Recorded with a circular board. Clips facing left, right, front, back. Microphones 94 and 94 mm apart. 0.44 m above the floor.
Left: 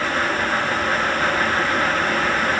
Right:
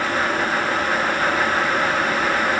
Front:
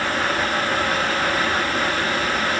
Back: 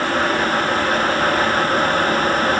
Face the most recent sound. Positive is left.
No sound to turn to.